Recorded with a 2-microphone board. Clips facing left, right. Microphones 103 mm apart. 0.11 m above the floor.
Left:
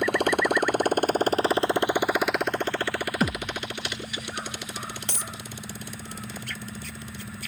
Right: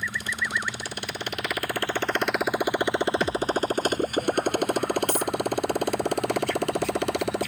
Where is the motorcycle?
60° left (ahead or behind); by 7.5 s 65° right (ahead or behind).